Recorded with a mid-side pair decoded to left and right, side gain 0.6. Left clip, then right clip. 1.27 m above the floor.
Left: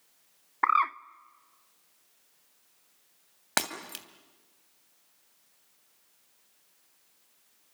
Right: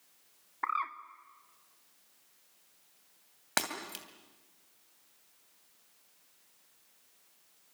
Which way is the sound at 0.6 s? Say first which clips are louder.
Left 9 dB; 45° left.